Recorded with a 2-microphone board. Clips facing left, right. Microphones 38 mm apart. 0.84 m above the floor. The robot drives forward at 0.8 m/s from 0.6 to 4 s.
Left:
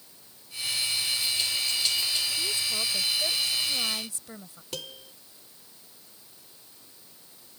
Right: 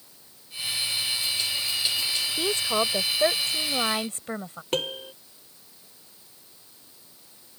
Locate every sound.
2.4 s a woman speaking: 65° right (ahead or behind); by 4.6 s 45° right (ahead or behind)
4.7 s a piano: 45° right (ahead or behind)